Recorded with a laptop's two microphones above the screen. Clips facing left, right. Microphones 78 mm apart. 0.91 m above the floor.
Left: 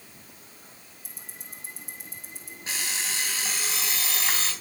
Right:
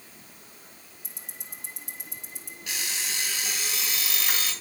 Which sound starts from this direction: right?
Ticking, at 1.0 s.